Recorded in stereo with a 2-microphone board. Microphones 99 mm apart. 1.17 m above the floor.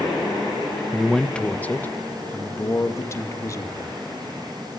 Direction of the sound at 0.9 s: Centre (ahead or behind).